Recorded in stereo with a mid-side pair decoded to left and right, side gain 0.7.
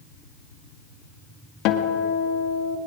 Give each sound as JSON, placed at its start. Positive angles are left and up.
{"t": 1.6, "sound": "a guitar", "azimuth_deg": 65, "distance_m": 2.0}